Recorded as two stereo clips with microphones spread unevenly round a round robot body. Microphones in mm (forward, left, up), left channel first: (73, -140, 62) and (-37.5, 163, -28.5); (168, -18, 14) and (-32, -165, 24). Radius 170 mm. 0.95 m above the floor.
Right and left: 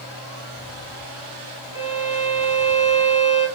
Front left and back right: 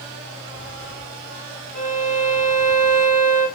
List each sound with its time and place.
1.7 s a violin: 160° right, 2.0 m